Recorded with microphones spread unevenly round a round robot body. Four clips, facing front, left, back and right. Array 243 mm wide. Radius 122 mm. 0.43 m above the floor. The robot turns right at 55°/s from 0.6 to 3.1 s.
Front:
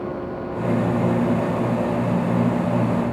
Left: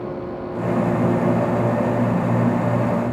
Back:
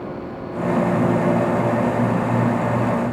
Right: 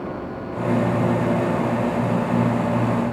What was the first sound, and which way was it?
Only background noise.